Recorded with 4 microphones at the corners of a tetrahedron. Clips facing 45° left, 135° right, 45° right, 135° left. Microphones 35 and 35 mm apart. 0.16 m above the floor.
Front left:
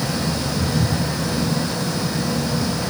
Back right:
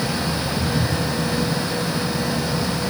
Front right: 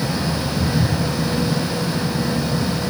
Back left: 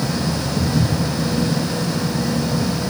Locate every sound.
0.6 s footsteps: 145° left, 6 m